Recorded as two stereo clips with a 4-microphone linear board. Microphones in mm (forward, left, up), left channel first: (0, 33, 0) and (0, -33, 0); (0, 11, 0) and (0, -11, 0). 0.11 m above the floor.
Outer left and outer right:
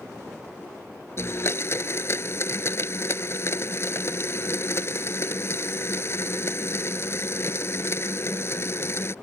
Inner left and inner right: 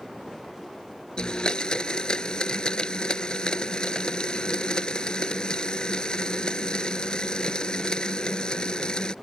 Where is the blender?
45° left (ahead or behind).